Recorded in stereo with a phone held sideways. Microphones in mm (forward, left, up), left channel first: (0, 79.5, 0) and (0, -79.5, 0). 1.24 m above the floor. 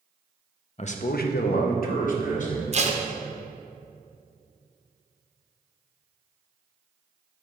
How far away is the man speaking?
About 0.5 m.